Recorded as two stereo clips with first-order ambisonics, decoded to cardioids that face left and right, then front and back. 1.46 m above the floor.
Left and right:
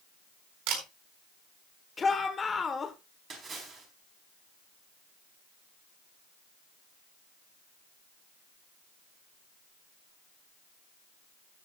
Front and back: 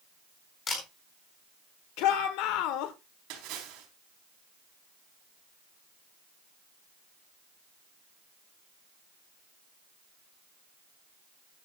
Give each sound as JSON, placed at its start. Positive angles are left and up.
{"t": 0.7, "sound": "a camera shutter", "azimuth_deg": -70, "distance_m": 4.0}
{"t": 2.0, "sound": "a shout", "azimuth_deg": 15, "distance_m": 1.2}
{"t": 3.3, "sound": "a splash", "azimuth_deg": -155, "distance_m": 4.0}